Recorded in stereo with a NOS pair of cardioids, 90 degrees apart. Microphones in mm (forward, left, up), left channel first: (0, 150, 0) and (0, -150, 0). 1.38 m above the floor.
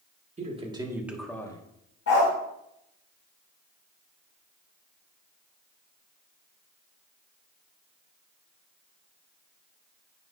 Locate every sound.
0.4 s a man speaking: 20° right, 2 m; by 1.6 s 15° left, 1.4 m
2.1 s a dog barking: 55° left, 2.5 m